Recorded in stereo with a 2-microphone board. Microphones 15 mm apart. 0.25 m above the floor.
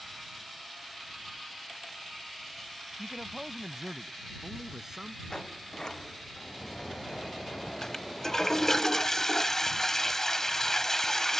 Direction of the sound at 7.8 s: 30° left (ahead or behind).